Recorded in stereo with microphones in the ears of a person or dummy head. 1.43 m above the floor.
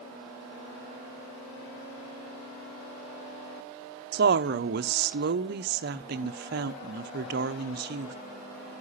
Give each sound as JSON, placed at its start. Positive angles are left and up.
{"t": 4.1, "sound": "a woman speaking", "side_deg": -55, "distance_m": 0.9}